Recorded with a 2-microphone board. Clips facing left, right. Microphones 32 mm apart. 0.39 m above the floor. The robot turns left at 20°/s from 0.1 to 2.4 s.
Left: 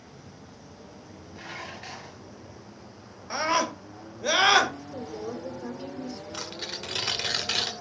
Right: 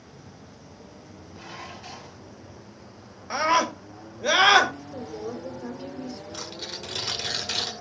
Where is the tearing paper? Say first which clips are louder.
Even; 35° left (ahead or behind), 1.1 m.